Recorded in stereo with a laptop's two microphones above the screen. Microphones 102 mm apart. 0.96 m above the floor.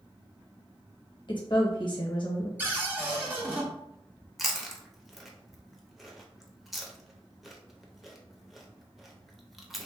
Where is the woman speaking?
50° left (ahead or behind), 0.8 m.